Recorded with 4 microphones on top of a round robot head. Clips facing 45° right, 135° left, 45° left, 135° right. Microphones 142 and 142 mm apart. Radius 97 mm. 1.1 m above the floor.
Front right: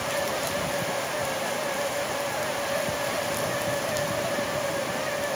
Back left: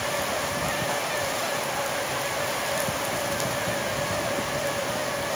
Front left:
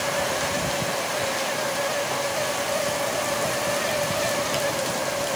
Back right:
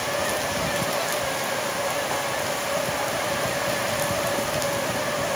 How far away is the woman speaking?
I don't hear a woman speaking.